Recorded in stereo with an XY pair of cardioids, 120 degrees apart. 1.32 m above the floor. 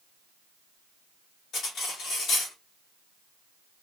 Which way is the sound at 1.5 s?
65° left.